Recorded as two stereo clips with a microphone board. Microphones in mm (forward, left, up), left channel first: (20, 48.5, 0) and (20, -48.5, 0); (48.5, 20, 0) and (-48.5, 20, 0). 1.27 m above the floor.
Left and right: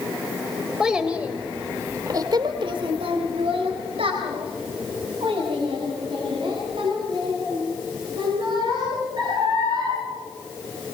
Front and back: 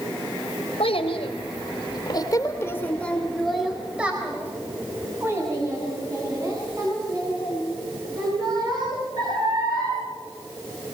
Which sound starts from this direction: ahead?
A child speaking, at 0.8 s.